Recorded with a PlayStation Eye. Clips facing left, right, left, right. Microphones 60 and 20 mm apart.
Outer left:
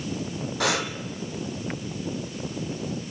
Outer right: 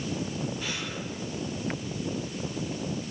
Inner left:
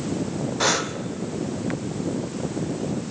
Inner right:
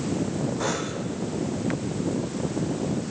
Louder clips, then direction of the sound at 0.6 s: Outer left 9 dB, inner left 5 dB; 80° left.